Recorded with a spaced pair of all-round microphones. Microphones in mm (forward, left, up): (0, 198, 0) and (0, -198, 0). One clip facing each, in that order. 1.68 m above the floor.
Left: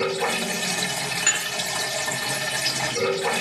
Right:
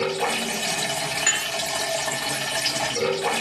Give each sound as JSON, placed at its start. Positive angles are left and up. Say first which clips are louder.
{"t": 0.0, "sound": "running water", "louder": "even", "side_deg": 35, "distance_m": 2.0}
{"t": 1.3, "sound": "dishes clattering", "louder": "right 1 dB", "side_deg": -10, "distance_m": 1.1}